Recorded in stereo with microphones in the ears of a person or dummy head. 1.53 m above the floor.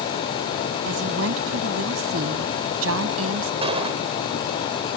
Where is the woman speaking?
75° right (ahead or behind); by 3.5 s 80° right.